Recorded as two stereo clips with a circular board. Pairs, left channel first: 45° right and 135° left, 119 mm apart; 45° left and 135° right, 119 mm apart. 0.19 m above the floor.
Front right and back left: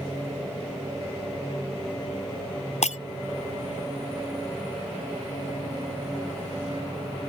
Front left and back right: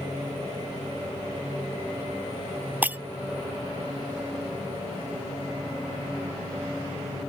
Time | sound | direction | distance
2.8 | breaking glass | 60° right | ?